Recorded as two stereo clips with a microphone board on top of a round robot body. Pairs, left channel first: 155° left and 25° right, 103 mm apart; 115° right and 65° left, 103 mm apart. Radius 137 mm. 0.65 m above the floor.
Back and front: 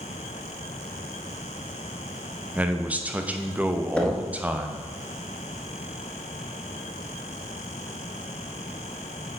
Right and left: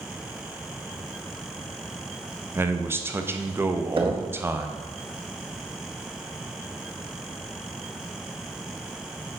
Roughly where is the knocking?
Left.